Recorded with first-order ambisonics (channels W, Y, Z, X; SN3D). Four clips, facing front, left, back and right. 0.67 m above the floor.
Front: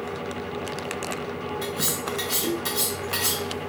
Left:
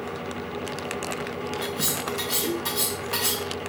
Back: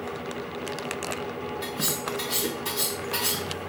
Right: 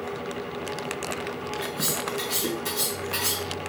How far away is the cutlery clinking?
About 1.8 m.